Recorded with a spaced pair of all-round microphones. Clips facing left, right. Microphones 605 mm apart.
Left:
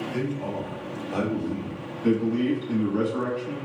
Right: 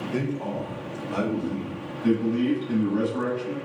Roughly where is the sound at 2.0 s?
Centre.